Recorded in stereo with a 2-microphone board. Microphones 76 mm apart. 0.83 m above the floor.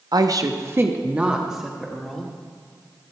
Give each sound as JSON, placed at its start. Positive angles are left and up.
{"t": 0.1, "sound": "a woman speaking", "side_deg": -60, "distance_m": 0.9}